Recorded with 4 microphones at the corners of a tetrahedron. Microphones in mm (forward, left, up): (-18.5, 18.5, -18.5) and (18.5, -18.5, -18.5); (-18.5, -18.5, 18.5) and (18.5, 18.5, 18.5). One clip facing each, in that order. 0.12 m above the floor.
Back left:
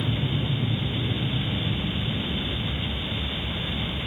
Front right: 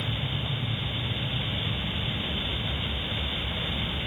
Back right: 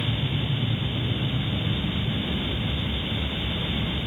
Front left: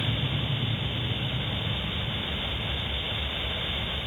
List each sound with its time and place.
0.0 s an aircraft: 150° left; by 4.1 s 155° right